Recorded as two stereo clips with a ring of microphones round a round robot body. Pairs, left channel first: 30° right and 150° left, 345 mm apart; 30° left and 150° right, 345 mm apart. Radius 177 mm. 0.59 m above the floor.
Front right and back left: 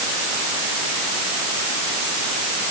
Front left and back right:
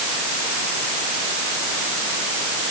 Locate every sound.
Only background noise.